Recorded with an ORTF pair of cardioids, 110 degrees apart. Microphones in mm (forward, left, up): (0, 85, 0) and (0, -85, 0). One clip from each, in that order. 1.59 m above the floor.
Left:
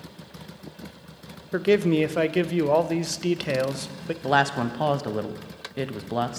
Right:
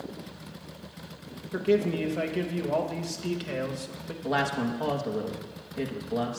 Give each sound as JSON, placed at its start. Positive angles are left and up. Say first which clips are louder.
{"t": 1.5, "sound": "a man speaking", "louder": "left 5 dB", "azimuth_deg": 45, "distance_m": 0.6}
{"t": 4.2, "sound": "a woman speaking", "louder": "left 6 dB", "azimuth_deg": 40, "distance_m": 0.7}